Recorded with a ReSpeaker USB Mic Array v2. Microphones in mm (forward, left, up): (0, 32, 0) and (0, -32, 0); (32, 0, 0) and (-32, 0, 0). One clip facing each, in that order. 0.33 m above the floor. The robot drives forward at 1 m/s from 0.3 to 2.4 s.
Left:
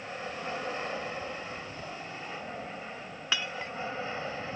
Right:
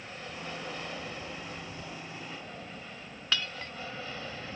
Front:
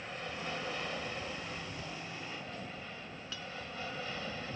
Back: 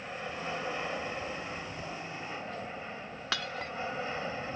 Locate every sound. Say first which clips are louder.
0.0 s an aircraft: left 4 dB, back 3 dB; 120° left; by 4.6 s 135° left
3.3 s breaking glass: left 1 dB, back 10 dB; 165° left